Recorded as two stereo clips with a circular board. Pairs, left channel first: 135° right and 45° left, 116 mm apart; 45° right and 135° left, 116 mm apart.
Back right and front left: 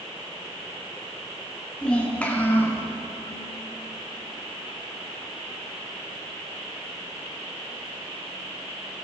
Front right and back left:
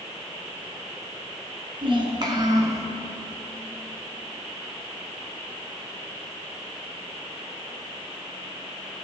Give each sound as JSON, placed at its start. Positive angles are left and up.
{"t": 1.8, "sound": "a child speaking", "azimuth_deg": 145, "distance_m": 1.6}